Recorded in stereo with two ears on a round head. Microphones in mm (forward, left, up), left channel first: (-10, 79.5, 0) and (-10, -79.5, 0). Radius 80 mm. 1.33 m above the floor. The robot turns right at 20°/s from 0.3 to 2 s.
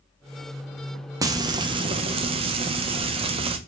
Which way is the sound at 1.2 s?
20° right (ahead or behind).